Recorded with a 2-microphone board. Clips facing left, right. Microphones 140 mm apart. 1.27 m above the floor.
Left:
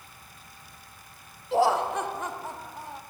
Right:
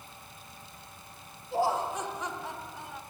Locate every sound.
1.5 s laughter: 85° left, 0.9 m; by 3.0 s 35° left (ahead or behind), 1.9 m